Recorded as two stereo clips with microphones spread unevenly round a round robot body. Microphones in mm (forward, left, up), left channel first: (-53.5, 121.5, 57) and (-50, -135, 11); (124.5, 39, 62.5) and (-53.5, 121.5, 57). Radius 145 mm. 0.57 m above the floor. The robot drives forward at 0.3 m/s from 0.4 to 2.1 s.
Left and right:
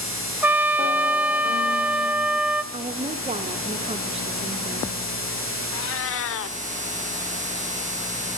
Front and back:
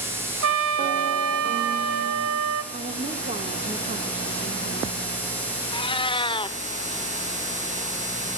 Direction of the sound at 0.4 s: Straight behind.